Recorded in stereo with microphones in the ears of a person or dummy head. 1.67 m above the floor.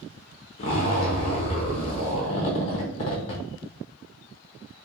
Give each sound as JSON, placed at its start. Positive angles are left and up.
{"t": 0.6, "sound": "a zipper", "side_deg": 30, "distance_m": 0.7}